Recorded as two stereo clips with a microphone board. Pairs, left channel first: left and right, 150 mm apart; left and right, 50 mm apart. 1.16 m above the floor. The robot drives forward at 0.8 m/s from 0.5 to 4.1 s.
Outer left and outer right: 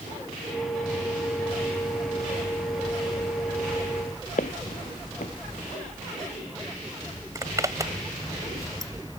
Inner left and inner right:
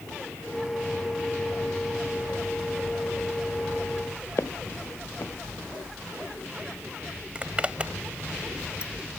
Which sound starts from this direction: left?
Footsteps, at 4.4 s.